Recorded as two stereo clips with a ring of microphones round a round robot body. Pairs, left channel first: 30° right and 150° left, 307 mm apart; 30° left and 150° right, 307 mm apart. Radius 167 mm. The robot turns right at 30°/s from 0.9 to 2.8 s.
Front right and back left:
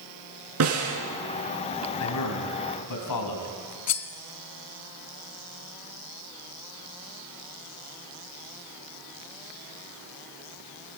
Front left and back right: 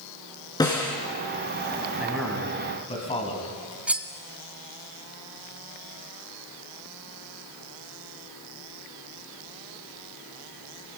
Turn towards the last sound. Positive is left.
turn(degrees=-65)